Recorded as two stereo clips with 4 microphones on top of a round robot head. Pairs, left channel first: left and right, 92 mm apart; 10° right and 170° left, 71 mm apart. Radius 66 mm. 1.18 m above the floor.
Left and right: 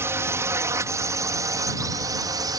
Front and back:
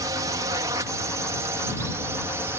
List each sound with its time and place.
0.0 s a drone: 150° right; by 2.6 s 135° right